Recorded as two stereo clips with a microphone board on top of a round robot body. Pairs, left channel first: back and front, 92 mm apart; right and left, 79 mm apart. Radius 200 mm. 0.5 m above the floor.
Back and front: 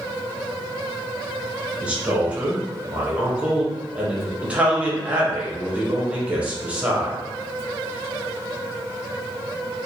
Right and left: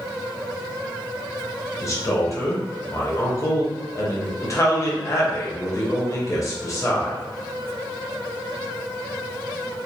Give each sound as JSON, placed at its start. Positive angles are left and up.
{"t": 1.8, "sound": "a man speaking", "azimuth_deg": -70, "distance_m": 1.4}